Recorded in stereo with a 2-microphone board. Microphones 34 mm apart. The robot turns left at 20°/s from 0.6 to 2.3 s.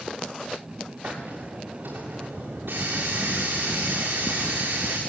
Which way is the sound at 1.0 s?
65° right (ahead or behind).